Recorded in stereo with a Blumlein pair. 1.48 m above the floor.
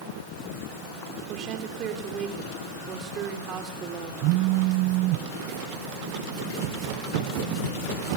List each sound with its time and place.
1.3 s a woman speaking: 30° right, 4 m
4.2 s a phone buzzing: 40° right, 0.8 m